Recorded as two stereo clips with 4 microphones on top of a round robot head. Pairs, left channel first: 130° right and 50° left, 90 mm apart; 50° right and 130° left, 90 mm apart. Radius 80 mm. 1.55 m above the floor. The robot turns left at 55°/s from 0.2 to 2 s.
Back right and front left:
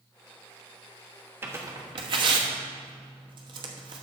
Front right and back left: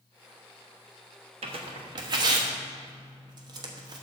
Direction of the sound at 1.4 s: 120° left.